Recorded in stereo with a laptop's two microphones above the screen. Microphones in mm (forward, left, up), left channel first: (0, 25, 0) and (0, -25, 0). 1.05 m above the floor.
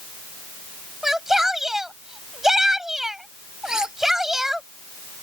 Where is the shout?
10° right (ahead or behind).